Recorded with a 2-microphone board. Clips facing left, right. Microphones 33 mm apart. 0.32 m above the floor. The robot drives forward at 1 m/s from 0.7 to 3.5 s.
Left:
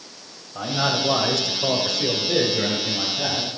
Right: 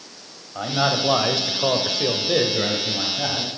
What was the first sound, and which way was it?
A man speaking, 15° right (ahead or behind).